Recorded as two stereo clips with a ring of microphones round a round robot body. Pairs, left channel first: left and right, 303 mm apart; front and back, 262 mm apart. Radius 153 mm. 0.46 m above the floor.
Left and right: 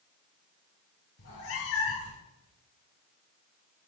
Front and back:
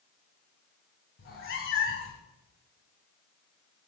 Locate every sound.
1.2 s a cat meowing: 45° left, 1.9 m